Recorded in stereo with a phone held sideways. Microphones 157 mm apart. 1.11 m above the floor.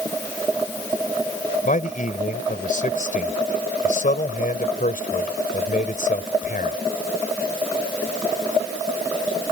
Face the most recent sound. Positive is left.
turn(degrees=60)  # may be behind; listen again after turning